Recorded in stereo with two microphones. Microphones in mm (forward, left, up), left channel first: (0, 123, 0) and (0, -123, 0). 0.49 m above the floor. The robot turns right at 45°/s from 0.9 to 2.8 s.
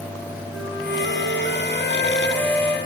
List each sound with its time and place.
0.5 s a flute: 105° left, 3 m; by 2.8 s 175° right, 3 m